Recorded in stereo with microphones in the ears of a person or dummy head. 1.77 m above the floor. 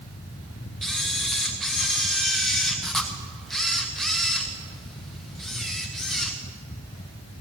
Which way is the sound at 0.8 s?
Centre (ahead or behind).